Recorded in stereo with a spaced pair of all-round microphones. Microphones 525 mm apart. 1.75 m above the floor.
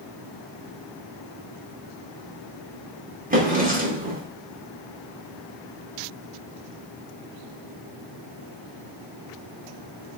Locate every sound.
3.3 s a drawer: 15° right (ahead or behind), 1.1 m